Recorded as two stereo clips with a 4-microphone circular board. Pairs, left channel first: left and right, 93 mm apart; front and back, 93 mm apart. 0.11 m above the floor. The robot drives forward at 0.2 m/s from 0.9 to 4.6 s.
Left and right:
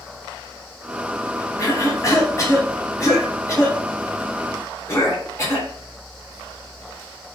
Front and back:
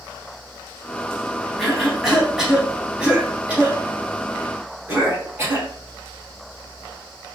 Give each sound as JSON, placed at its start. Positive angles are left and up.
{"t": 1.6, "sound": "a cough", "azimuth_deg": 90, "distance_m": 1.4}